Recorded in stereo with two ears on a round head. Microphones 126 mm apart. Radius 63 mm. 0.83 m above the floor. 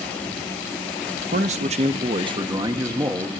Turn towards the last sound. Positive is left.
turn(degrees=-15)  # may be behind; listen again after turning